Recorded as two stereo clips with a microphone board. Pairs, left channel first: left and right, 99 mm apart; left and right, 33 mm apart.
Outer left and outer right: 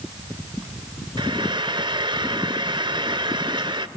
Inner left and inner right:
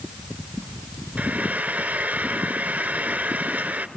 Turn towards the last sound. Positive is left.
turn(degrees=-45)  # may be behind; listen again after turning